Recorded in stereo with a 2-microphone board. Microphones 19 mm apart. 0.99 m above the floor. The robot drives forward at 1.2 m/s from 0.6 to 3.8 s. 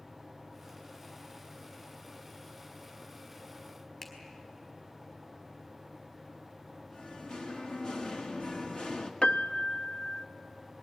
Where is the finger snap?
20° left (ahead or behind), 4 m.